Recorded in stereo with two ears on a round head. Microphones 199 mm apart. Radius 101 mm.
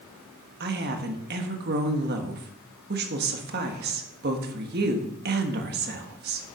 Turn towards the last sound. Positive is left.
turn(degrees=-45)  # may be behind; listen again after turning